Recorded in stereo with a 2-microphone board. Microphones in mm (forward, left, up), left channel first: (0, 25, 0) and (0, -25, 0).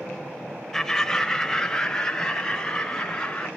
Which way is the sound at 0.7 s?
10° left (ahead or behind).